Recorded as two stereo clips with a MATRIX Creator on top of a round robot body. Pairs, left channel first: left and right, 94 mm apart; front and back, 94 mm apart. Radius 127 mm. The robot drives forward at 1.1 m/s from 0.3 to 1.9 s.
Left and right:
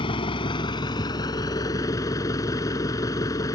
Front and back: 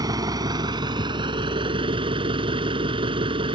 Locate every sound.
0.0 s an engine running: 130° left; by 3.6 s 150° left